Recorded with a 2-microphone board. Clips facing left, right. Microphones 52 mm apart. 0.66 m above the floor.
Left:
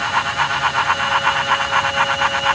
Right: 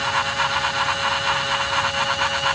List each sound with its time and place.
Only background noise.